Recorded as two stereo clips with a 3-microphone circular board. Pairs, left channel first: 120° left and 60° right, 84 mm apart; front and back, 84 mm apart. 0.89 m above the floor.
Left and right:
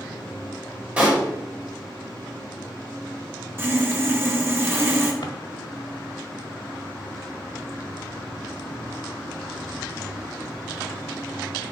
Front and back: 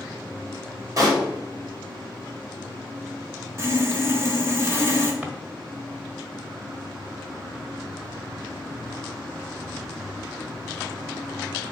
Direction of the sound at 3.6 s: 120° right.